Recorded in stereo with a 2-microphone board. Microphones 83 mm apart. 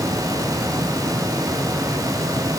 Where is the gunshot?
I don't hear a gunshot.